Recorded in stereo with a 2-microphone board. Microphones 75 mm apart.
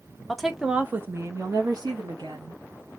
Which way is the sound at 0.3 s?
5° left (ahead or behind).